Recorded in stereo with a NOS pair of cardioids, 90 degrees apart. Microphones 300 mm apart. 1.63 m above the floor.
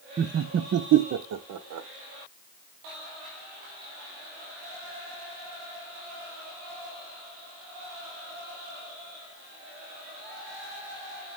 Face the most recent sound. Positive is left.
turn(degrees=-70)